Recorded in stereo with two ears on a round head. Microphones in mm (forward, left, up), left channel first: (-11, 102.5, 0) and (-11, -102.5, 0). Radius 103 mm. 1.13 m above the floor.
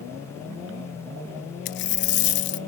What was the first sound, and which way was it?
A dropped coin, 50° left (ahead or behind).